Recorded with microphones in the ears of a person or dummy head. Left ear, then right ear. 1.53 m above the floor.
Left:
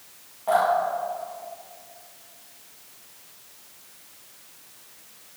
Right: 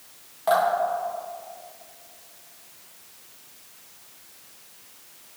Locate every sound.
0.5 s dripping: 65° right (ahead or behind), 2.5 m